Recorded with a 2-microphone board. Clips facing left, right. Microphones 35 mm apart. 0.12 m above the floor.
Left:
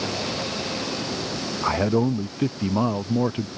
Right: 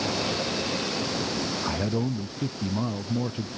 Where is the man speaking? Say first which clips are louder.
Left 10 dB; 40° left (ahead or behind).